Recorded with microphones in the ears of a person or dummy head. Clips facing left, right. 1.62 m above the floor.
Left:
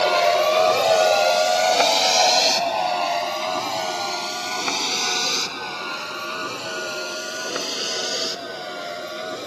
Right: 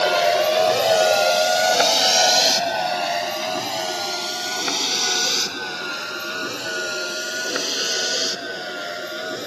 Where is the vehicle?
10° right (ahead or behind); by 9.5 s 15° right (ahead or behind).